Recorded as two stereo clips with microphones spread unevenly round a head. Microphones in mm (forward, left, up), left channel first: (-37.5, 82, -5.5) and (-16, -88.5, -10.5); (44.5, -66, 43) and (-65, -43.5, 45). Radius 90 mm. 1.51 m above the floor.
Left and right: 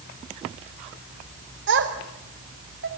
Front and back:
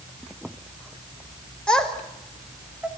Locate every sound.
1.7 s a child speaking: 95° right, 4 m; by 2.9 s 115° right, 3.5 m